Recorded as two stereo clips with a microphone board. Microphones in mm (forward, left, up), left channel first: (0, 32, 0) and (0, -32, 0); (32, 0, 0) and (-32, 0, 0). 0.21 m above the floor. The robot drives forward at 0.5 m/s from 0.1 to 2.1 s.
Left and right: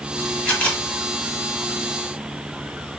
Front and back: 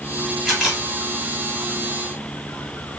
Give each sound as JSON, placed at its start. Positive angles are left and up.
{"t": 0.5, "sound": "a camera shutter", "azimuth_deg": 90, "distance_m": 1.6}